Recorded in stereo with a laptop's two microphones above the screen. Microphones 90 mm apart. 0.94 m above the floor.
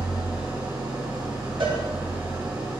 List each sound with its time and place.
0.0 s an engine running: 40° right (ahead or behind), 2.5 m
1.6 s a cowbell: 60° right (ahead or behind), 1.4 m